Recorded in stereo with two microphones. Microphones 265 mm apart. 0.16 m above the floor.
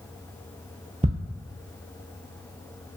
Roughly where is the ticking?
Right.